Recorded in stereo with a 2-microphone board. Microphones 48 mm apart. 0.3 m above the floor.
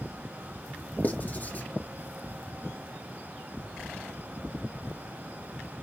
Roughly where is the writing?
Left.